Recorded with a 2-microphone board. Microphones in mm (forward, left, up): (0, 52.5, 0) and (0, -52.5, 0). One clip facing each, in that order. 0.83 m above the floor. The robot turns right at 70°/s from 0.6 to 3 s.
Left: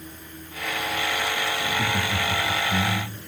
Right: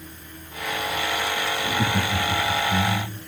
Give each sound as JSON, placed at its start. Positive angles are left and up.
{"t": 1.6, "sound": "laughter", "azimuth_deg": -85, "distance_m": 2.0}